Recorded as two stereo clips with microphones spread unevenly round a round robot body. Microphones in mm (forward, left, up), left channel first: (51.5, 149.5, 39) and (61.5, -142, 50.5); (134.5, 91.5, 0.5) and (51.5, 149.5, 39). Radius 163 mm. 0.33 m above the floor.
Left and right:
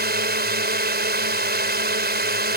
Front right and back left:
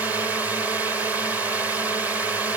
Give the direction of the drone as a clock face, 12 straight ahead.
4 o'clock.